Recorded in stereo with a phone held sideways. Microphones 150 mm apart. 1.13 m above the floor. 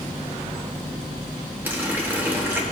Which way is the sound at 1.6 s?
15° right (ahead or behind).